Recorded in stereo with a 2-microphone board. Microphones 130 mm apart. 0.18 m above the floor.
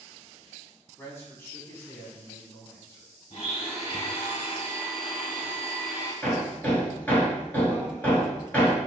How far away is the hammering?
About 1.7 m.